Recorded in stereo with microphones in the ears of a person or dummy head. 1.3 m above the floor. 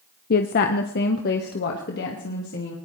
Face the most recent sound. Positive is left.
turn(degrees=50)  # may be behind; listen again after turning